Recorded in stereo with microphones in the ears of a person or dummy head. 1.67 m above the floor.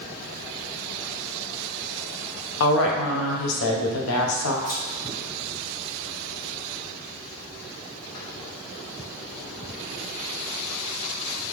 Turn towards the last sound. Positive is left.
turn(degrees=20)  # may be behind; listen again after turning